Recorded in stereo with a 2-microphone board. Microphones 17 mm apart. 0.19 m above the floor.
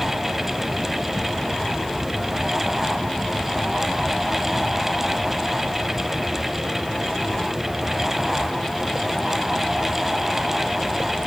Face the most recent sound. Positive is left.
No sound to turn to.